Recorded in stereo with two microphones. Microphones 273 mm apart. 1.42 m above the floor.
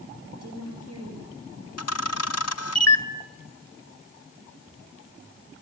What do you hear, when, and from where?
0.3 s a woman speaking: 65° right (ahead or behind), 7.5 m
1.8 s a camera shutter: 65° left (ahead or behind), 1.0 m